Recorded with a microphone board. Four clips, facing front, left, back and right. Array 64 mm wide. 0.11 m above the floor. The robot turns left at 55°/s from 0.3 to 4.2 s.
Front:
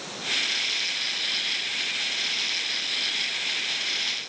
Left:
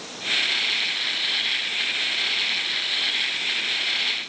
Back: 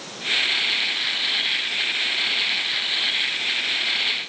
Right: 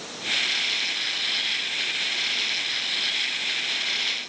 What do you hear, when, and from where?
Only background noise.